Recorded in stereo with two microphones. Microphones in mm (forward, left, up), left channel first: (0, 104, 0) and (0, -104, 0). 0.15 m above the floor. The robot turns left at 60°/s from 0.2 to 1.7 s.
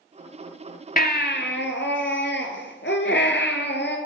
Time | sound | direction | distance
1.0 | a baby crying | 125° left | 1.1 m